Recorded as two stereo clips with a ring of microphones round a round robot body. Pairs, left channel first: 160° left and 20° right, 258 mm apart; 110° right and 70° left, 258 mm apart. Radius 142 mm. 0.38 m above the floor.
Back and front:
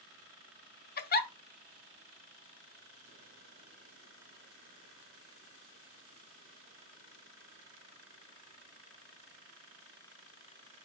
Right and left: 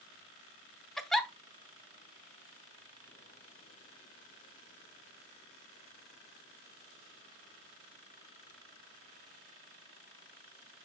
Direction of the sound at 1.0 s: 160° left.